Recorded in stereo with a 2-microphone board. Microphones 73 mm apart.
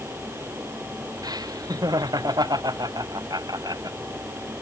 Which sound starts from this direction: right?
Laughter, at 1.2 s.